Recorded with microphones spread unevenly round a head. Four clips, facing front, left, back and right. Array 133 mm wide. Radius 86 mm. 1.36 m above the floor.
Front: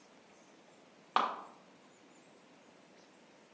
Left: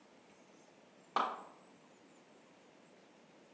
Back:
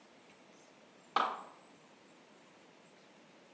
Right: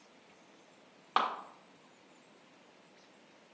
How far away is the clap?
About 1.3 m.